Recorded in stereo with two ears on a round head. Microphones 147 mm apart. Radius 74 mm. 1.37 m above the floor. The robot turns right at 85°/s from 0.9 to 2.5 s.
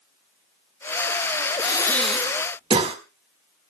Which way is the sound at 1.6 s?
35° left (ahead or behind).